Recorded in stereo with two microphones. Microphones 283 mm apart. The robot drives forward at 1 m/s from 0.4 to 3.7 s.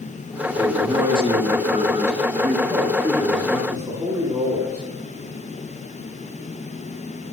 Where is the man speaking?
15° right (ahead or behind), 1.8 m.